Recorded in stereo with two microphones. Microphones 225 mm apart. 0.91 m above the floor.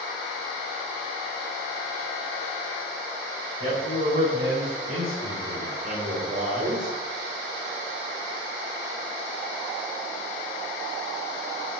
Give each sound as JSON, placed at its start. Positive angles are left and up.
{"t": 3.6, "sound": "a man speaking", "side_deg": -50, "distance_m": 5.0}